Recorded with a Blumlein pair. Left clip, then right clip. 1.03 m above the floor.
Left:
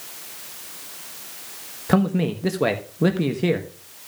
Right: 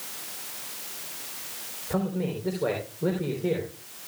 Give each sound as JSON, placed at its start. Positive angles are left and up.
{"t": 1.9, "sound": "a man speaking", "azimuth_deg": 40, "distance_m": 1.1}